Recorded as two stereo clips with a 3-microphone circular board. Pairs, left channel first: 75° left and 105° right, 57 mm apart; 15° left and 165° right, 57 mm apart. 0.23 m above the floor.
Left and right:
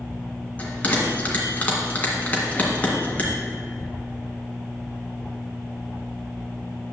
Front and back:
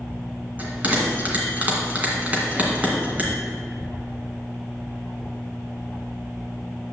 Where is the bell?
135° left, 2.5 m.